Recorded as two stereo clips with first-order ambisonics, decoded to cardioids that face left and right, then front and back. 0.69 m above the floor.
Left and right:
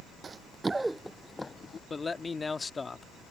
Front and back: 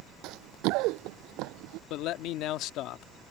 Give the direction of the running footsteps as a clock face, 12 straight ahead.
5 o'clock.